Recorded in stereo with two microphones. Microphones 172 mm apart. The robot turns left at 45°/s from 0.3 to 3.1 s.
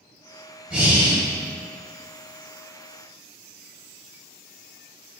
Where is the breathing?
5° right (ahead or behind), 1.6 m; by 1.2 s 20° right (ahead or behind), 1.6 m.